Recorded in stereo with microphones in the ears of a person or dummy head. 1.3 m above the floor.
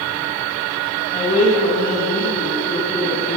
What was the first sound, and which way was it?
A woman speaking, 25° left (ahead or behind).